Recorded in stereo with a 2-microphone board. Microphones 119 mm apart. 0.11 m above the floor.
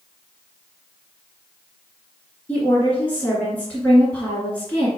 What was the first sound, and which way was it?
A woman speaking, 10° left (ahead or behind).